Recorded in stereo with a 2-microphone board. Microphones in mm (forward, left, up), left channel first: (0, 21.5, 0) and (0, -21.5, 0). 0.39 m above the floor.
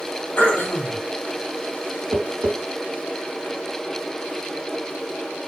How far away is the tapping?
About 1.3 m.